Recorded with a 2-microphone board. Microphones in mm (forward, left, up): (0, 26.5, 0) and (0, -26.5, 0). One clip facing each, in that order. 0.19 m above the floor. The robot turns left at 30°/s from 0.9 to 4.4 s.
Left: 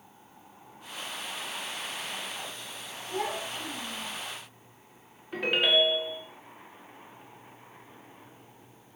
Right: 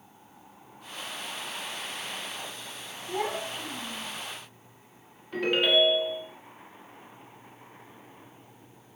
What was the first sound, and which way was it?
A child speaking, 130° right.